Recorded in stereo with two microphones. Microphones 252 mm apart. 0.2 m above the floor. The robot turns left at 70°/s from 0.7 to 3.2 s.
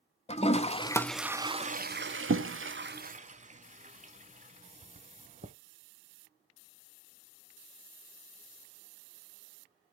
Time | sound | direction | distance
0.3 | a toilet flushing | 25° left (ahead or behind) | 0.6 m